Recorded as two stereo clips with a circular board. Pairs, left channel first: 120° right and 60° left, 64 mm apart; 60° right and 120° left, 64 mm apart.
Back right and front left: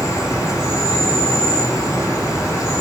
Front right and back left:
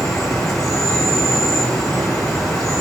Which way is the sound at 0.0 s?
140° right.